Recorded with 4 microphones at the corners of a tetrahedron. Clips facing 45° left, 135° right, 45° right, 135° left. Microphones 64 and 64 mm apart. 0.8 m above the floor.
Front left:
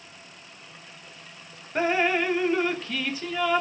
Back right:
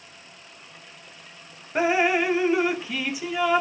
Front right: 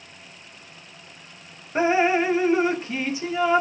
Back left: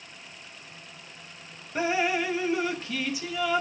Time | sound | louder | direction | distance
1.8 | dripping | back right 2 dB, front right 6 dB | 65° right | ?